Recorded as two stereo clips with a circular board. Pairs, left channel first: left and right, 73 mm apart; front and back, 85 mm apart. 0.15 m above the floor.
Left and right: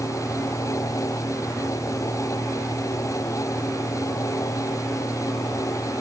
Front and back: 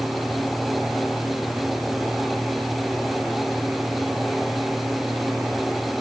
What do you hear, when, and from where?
Only background noise.